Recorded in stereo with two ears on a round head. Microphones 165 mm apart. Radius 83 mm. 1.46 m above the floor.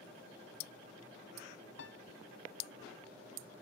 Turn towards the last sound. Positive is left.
turn(degrees=70)  # may be behind; listen again after turning